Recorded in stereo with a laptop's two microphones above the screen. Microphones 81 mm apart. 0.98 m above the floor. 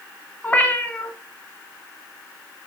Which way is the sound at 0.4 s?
20° left (ahead or behind).